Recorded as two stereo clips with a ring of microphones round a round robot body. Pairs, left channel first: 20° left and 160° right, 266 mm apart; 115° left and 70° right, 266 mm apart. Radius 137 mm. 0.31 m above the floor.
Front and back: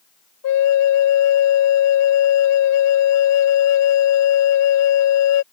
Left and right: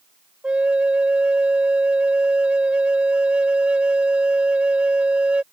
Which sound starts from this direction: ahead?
A flute, at 0.4 s.